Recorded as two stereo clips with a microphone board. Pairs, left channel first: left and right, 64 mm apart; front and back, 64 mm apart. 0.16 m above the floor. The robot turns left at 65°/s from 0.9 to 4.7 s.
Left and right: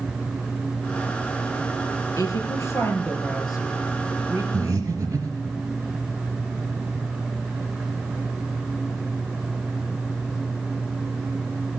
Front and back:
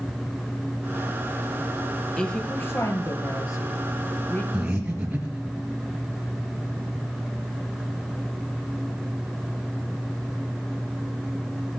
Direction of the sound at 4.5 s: 100° right.